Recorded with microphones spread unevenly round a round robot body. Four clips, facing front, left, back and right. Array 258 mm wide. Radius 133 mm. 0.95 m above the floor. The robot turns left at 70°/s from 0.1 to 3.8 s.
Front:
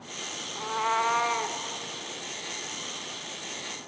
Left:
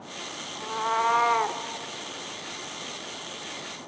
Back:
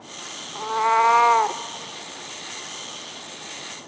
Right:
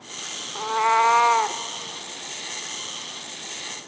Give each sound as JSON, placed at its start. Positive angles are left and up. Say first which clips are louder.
{"t": 0.6, "sound": "a cat meowing", "louder": "right 7 dB, back 8 dB", "azimuth_deg": -120, "distance_m": 0.7}